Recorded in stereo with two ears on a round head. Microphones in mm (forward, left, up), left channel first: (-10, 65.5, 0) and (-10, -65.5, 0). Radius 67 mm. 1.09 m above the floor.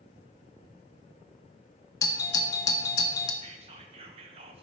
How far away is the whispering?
About 0.8 m.